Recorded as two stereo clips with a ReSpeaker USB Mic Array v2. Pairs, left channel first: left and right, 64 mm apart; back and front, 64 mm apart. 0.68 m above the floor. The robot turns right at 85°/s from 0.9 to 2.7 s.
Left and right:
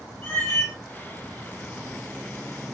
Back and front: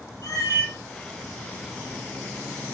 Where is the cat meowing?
145° left, 2 m.